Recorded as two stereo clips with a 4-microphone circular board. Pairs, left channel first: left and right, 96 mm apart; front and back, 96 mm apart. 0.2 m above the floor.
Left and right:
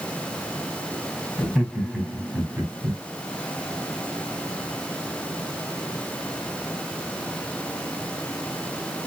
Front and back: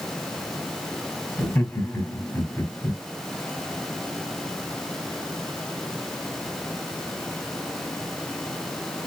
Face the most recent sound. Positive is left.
turn(degrees=-40)